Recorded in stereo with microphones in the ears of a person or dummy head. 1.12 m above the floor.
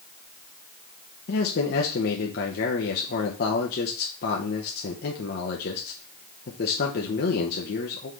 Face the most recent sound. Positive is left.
turn(degrees=50)  # may be behind; listen again after turning